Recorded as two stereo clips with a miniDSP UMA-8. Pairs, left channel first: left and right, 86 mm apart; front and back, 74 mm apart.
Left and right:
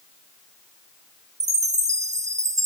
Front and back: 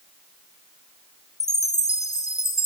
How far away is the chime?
About 0.9 m.